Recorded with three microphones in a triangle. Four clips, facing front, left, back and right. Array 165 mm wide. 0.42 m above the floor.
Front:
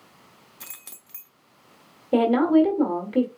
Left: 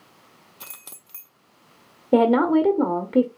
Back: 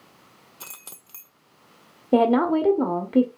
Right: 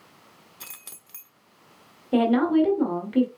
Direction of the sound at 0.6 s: 140° left.